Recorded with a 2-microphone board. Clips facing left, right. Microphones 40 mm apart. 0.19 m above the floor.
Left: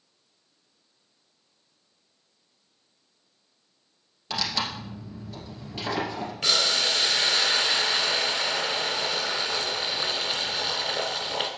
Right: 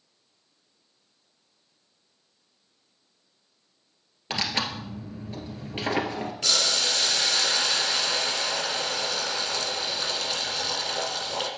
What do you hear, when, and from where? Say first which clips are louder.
4.3 s tearing paper: right 1 dB; 35° right (ahead or behind), 2.0 m
6.4 s boiling: left 2 dB; 20° left (ahead or behind), 1.6 m